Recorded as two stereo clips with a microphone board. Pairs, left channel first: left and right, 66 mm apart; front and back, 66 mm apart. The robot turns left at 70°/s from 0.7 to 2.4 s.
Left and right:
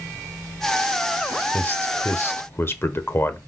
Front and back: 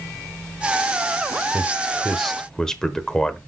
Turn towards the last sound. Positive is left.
turn(degrees=75)